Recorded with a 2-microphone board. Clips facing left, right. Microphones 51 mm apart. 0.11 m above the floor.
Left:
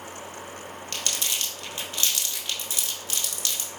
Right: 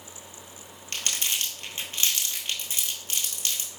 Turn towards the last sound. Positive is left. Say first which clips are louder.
# right 1 dB
turn(degrees=-30)  # may be behind; listen again after turning